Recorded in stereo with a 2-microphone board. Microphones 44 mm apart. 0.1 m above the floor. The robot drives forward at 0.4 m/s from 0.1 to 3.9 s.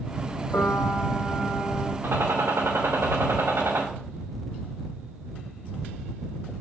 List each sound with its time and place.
0.5 s a piano: 55° left (ahead or behind), 2 m; by 1.9 s 60° left (ahead or behind), 2 m
2.0 s a gunshot: 85° right, 4 m